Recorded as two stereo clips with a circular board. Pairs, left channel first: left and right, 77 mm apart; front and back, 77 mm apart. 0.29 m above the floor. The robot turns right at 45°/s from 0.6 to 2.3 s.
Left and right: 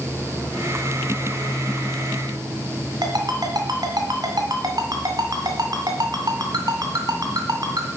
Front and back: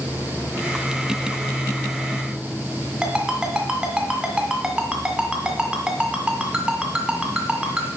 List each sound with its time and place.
3.0 s a ringtone: 100° right, 1.9 m